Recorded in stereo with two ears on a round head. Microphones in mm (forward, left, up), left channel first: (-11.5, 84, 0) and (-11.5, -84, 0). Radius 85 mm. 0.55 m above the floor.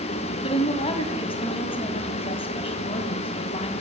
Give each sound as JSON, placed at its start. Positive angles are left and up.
{"t": 0.4, "sound": "a woman speaking", "side_deg": 30, "distance_m": 3.5}